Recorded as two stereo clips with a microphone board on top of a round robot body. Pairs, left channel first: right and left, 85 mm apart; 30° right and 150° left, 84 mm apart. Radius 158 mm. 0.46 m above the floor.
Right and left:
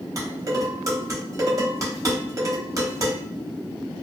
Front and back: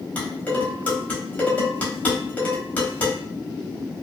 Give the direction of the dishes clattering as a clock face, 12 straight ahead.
11 o'clock.